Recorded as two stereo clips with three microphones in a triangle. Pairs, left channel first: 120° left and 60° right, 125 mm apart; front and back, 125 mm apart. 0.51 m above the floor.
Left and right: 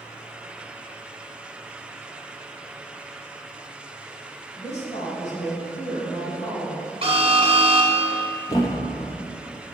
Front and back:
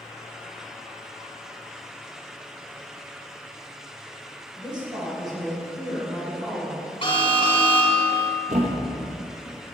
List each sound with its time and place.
4.6 s a woman speaking: 130° left, 2.5 m; by 6.9 s 110° left, 5.5 m
7.0 s an alarm: 30° right, 1.1 m
8.5 s a thud: straight behind, 1.4 m